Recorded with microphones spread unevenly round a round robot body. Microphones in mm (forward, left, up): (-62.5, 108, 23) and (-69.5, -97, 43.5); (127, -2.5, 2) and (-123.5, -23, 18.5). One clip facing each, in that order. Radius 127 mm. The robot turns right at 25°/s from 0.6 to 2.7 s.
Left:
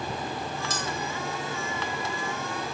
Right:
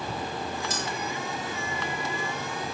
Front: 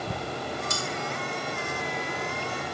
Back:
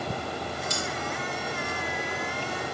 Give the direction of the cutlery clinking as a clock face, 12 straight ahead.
10 o'clock.